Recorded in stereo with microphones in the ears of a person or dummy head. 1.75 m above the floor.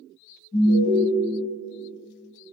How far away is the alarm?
About 1.2 m.